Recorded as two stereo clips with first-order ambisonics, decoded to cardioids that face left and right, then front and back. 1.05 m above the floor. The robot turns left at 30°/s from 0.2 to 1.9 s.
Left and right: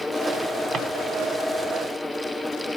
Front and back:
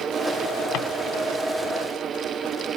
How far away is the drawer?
About 0.9 m.